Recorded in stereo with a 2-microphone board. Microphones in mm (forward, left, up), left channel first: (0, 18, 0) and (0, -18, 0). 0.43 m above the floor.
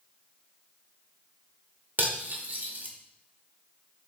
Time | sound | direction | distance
2.0 | cutlery clinking | 50° right (ahead or behind) | 0.6 m